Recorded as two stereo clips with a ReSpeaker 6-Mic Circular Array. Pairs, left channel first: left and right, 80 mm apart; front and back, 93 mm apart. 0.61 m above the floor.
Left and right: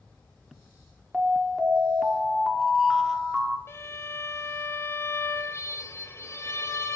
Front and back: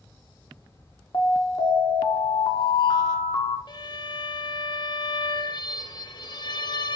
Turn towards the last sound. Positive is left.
turn(degrees=35)